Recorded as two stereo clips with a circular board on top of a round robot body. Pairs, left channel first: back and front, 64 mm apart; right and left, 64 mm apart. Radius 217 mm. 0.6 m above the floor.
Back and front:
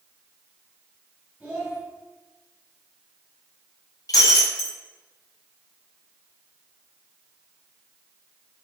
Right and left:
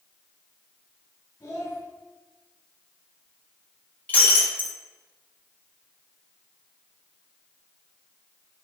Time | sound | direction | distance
1.4 | a child speaking | 55° right | 2.5 m
4.1 | breaking glass | 155° right | 1.2 m